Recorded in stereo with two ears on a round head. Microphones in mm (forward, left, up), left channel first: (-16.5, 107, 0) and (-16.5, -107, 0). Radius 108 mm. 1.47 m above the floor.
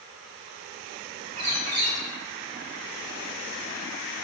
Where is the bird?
80° right, 1.7 m.